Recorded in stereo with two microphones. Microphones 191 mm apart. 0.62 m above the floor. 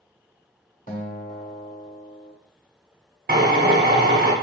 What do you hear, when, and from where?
0.9 s a guitar: 45° left (ahead or behind), 0.9 m
3.3 s a drill: 55° right (ahead or behind), 0.9 m